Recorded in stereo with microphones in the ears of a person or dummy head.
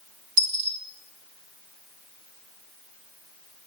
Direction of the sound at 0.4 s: 50° right (ahead or behind).